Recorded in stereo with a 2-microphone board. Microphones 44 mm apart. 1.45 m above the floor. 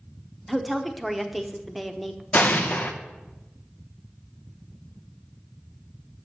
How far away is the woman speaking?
About 0.7 m.